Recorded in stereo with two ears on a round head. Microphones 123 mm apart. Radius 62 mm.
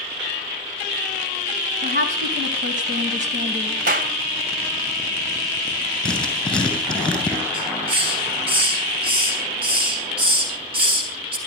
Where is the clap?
70° right (ahead or behind), 2 m.